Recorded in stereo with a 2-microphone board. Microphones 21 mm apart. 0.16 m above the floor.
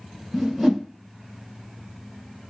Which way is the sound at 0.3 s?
10° right (ahead or behind).